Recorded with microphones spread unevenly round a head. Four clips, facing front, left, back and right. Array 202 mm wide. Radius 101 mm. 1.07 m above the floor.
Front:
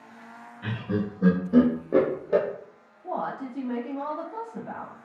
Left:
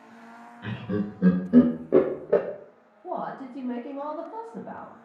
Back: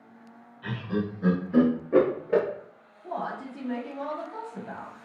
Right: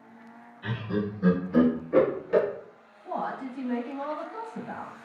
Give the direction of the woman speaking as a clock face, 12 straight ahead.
10 o'clock.